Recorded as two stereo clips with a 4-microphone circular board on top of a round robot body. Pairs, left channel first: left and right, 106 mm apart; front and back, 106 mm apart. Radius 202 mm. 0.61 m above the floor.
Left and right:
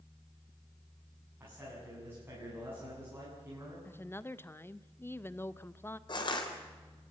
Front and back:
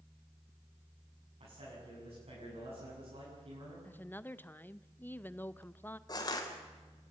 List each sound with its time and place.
1.4 s a man speaking: 160° right, 8 m
3.9 s a woman speaking: 50° left, 0.9 m
6.1 s crushing: 45° left, 3.5 m